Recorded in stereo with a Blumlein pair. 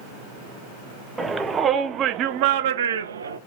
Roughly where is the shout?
Ahead.